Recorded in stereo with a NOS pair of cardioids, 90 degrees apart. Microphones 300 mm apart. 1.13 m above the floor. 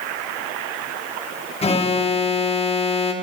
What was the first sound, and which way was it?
An alarm, 20° left.